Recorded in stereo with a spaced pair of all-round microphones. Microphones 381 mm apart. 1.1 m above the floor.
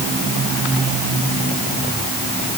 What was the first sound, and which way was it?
Only background noise.